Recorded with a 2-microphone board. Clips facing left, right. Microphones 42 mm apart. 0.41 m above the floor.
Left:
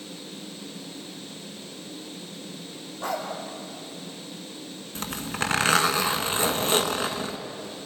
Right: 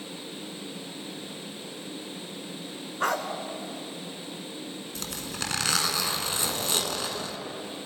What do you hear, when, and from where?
3.0 s a dog barking: 65° right (ahead or behind), 1.7 m
5.0 s a zipper: 35° left (ahead or behind), 1.3 m